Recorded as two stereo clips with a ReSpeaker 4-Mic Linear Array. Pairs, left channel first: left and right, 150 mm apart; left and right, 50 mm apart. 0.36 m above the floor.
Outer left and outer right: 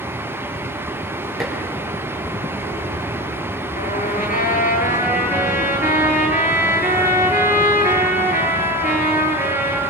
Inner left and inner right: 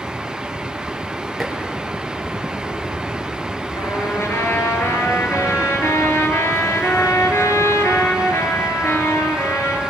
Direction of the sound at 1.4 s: Centre (ahead or behind).